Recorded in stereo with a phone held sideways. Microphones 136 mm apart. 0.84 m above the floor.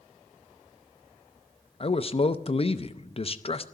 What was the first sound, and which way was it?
A man speaking, 45° left (ahead or behind).